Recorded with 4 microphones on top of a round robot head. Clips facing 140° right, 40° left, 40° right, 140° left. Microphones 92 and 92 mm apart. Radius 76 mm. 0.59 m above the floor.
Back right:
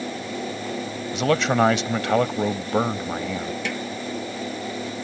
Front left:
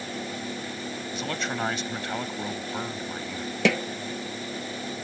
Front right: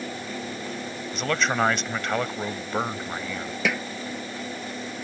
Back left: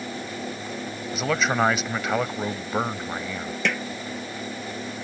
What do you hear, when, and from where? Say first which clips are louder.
1.1 s a man speaking: back right 12 dB, back left 1 dB; 135° right
3.6 s a snare drum: front left 6 dB, front right 1 dB; 45° left